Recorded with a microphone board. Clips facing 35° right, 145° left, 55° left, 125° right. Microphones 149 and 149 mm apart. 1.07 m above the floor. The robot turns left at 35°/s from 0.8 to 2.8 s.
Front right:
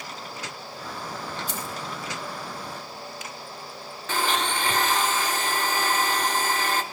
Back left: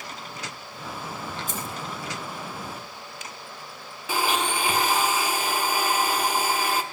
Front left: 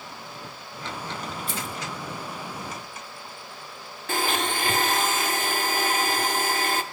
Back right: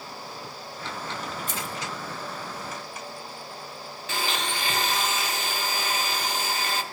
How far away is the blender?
About 0.8 m.